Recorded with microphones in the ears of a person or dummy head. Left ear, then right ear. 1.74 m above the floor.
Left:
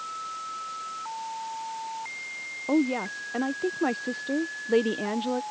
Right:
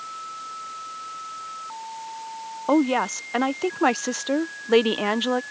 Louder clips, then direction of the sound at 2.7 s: Right 6 dB; 40° right (ahead or behind).